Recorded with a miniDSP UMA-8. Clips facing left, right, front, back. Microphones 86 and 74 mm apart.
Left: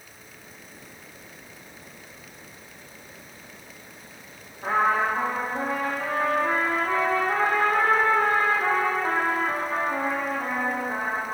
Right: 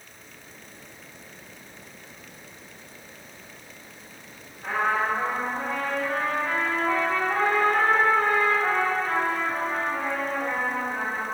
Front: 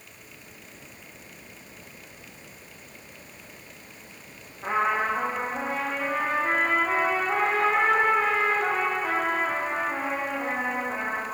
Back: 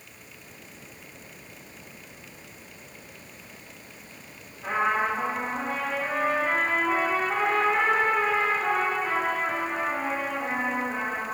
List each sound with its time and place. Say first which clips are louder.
4.6 s a trumpet: left 3 dB, even; 45° left, 2.5 m